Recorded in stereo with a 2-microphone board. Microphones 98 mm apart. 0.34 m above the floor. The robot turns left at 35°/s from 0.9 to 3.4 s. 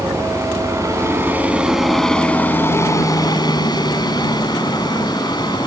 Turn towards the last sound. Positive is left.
turn(degrees=125)